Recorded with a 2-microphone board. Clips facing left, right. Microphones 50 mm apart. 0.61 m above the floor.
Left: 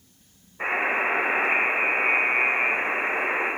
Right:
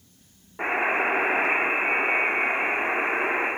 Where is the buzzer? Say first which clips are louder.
Even; 80° right, 3.5 m.